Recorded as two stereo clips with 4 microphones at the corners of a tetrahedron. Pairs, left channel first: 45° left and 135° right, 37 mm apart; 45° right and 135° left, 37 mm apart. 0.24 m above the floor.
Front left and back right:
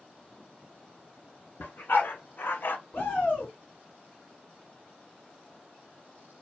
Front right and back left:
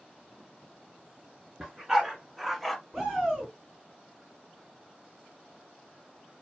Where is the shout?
55° left, 1.9 m.